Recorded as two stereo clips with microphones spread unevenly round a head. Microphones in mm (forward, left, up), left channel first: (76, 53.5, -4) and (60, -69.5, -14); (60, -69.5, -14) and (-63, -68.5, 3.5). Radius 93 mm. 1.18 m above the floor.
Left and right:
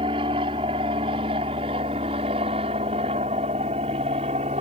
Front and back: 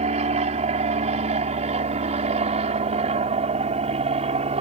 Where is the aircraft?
160° right; by 4.6 s 150° right.